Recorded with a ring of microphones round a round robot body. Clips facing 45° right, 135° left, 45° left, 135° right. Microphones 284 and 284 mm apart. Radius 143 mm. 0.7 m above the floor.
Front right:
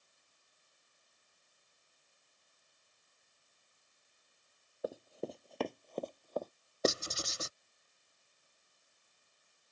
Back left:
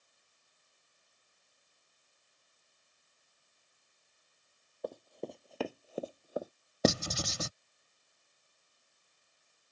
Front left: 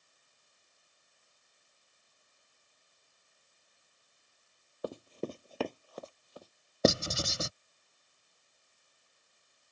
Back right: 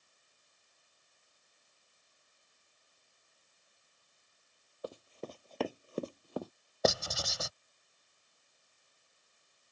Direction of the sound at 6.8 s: 110° left.